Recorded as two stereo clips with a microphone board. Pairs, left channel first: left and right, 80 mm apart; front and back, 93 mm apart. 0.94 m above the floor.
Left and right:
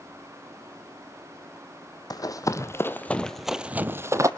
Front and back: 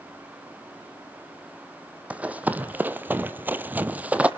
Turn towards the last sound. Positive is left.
turn(degrees=-110)